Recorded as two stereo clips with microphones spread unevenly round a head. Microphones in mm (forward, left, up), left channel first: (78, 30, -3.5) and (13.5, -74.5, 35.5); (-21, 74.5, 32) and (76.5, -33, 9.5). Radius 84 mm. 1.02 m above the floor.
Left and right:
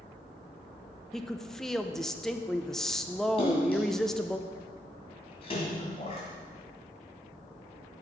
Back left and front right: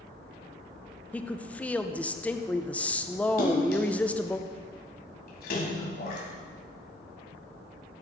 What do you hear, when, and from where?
1.1 s a woman speaking: 45° left, 0.6 m
3.4 s a splash: 125° left, 1.9 m